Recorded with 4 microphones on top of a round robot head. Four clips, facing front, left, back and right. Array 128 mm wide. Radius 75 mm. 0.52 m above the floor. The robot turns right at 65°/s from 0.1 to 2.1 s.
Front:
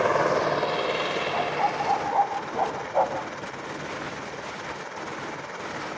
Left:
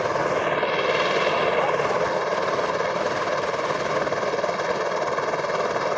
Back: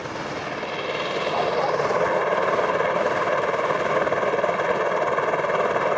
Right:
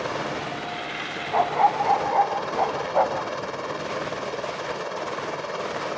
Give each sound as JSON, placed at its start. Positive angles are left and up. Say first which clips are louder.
{"t": 0.0, "sound": "a helicopter", "louder": "left 6 dB, front 8 dB", "azimuth_deg": 30}
{"t": 1.3, "sound": "a dog barking", "louder": "right 1 dB, back 4 dB", "azimuth_deg": -105}